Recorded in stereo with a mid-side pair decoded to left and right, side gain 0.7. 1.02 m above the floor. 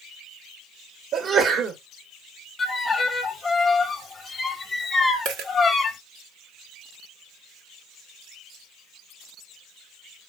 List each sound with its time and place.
1.1 s a sneeze: 40° right, 1.4 m
2.6 s a violin: 20° left, 0.8 m
5.2 s a dropped coin: 65° right, 1.3 m